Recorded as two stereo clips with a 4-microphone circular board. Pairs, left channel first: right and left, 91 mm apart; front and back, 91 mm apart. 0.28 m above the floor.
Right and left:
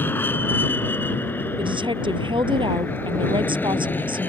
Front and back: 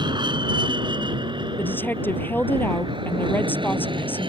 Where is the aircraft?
155° right; by 4.3 s 160° right.